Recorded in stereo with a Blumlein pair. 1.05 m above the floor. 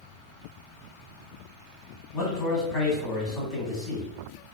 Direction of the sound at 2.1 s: 20° left.